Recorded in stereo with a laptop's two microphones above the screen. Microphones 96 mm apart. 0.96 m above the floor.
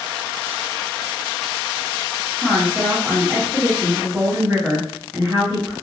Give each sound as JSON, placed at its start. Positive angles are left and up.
{"t": 2.4, "sound": "a woman speaking", "side_deg": -15, "distance_m": 1.0}